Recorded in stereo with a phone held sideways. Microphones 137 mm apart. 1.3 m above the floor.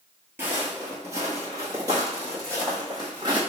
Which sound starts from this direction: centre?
Footsteps, at 0.4 s.